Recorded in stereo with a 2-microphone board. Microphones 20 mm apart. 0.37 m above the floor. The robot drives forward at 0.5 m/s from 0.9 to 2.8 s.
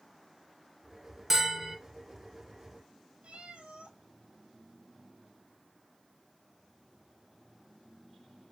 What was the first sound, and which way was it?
A bell, 20° right (ahead or behind).